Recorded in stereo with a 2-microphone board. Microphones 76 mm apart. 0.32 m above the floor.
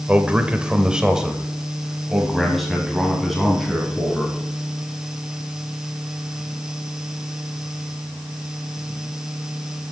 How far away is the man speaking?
About 1.1 m.